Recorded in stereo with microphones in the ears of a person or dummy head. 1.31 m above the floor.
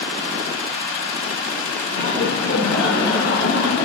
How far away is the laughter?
About 4 m.